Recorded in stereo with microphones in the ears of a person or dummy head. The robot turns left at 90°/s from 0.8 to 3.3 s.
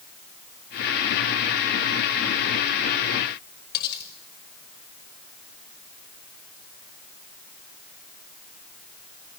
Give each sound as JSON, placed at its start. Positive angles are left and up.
{"t": 3.7, "sound": "cutlery clinking", "side_deg": 60, "distance_m": 4.0}